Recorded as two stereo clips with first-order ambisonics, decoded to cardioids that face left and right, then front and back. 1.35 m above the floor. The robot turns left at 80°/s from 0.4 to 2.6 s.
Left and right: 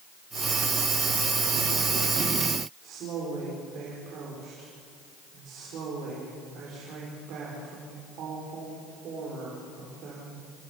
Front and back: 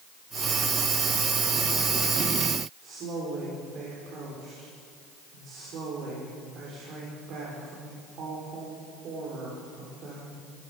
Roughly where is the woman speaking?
Behind right.